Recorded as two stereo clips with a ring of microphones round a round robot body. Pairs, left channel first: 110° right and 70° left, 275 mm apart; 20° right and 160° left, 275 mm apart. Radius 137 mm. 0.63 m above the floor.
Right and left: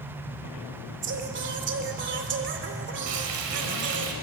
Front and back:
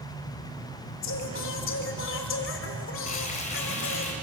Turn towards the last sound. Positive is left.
turn(degrees=45)